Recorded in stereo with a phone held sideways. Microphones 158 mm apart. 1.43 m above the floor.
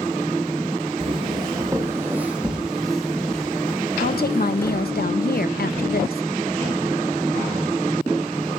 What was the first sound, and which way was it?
Footsteps, 35° right (ahead or behind).